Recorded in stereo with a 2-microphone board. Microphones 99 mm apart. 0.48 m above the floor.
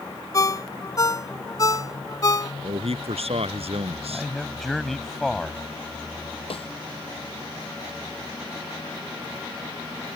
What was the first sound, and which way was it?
A ringtone, 35° left (ahead or behind).